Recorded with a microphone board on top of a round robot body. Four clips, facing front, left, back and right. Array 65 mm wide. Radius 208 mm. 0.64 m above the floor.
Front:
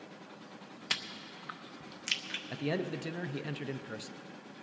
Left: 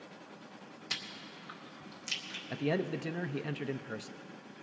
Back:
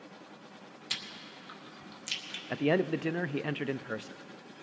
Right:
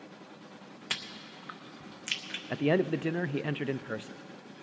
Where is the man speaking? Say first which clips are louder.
Right 6 dB, back 7 dB; 135° right, 0.5 m.